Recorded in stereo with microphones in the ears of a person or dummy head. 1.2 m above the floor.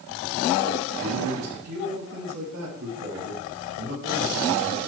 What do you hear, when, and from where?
1.0 s a man speaking: 70° right (ahead or behind), 10 m; by 4.9 s 90° right, 6.5 m